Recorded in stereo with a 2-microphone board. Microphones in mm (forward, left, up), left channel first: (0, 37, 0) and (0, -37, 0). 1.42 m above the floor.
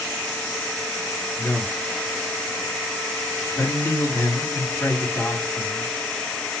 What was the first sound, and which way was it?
A man speaking, 35° left (ahead or behind).